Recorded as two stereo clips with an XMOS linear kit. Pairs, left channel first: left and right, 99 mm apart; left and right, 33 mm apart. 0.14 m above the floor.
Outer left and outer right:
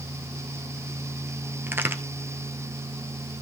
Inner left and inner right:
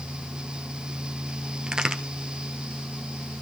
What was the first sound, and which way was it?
A crack, 20° right (ahead or behind).